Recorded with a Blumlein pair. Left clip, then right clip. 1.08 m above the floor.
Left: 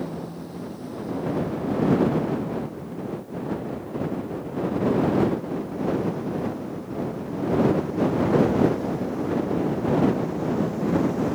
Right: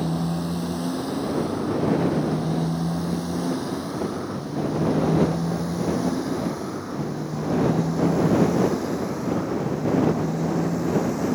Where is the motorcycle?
35° right; by 11.4 s 60° right.